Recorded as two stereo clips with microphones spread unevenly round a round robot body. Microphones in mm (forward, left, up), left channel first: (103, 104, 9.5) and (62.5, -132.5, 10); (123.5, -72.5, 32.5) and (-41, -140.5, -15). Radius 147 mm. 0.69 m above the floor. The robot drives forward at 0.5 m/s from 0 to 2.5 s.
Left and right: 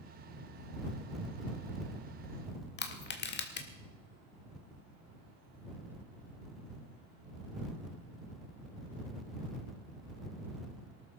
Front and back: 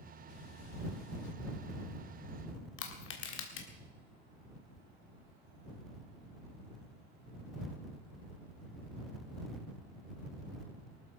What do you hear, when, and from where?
2.8 s crushing: 40° left, 1.7 m